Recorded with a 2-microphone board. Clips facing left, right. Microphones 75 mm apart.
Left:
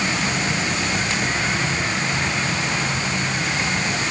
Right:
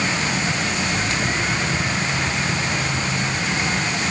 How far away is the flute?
I don't hear a flute.